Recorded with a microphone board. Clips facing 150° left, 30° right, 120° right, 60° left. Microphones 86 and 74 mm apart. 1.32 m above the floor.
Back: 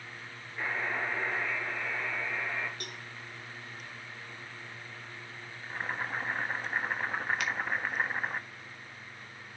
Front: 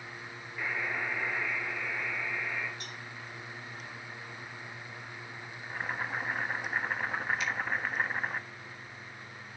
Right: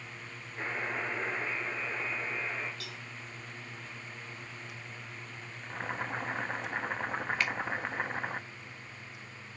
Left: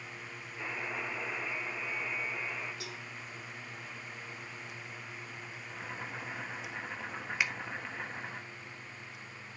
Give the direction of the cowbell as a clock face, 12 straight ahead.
8 o'clock.